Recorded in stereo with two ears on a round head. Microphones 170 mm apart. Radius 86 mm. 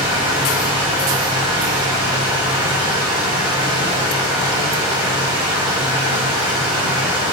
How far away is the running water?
About 1.0 m.